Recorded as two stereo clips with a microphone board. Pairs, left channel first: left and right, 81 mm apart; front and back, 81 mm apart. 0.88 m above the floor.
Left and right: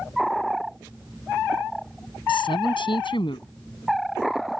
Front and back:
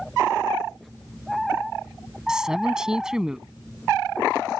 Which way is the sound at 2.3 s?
95° left.